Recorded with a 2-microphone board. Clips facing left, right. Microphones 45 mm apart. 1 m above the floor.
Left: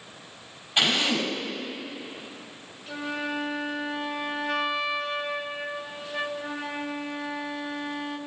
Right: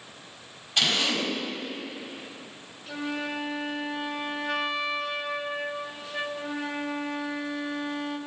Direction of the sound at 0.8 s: 20° left (ahead or behind).